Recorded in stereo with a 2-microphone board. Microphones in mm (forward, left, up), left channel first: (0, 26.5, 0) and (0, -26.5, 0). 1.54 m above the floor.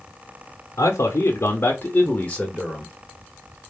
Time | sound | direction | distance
0.8 | a man speaking | 70° left (ahead or behind) | 1.0 m